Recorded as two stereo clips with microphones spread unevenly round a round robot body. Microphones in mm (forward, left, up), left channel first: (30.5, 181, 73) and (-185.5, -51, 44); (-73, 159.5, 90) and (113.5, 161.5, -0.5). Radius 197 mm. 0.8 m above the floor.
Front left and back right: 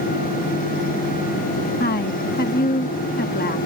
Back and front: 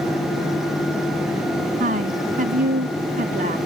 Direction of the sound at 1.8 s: 20° right.